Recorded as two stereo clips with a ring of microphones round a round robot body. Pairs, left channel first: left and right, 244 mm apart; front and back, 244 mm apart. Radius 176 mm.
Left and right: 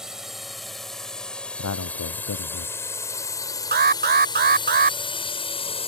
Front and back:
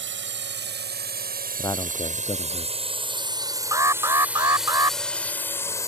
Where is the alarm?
110° right.